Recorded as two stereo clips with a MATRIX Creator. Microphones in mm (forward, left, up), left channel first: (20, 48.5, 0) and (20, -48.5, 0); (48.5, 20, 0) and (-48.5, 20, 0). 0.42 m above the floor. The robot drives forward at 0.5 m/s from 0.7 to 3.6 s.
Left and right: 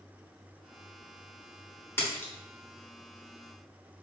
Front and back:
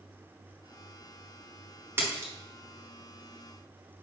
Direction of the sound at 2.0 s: 135° left.